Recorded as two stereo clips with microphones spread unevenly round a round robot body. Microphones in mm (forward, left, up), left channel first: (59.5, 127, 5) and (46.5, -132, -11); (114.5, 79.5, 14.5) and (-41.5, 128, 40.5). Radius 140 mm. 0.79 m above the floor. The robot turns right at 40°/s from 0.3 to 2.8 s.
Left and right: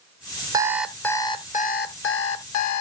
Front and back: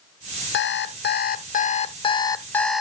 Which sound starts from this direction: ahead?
An alarm clock, at 0.5 s.